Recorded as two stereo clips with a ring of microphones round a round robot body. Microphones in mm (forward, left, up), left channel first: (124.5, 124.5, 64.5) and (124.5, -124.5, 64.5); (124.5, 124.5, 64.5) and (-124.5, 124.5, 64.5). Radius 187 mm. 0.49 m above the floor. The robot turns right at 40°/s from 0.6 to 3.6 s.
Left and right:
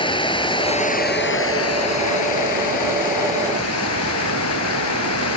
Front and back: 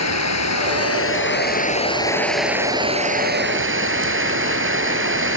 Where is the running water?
20° left; by 5.4 s 140° left.